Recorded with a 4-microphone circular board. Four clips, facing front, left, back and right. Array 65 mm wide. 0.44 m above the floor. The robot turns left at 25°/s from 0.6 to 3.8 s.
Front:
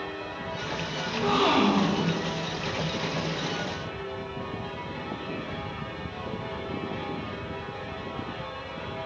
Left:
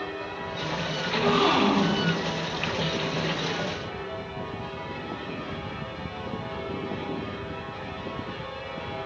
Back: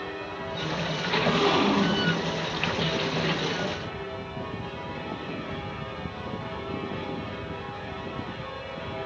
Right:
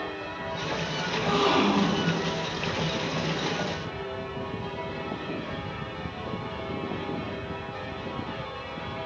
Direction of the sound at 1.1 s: 45° left.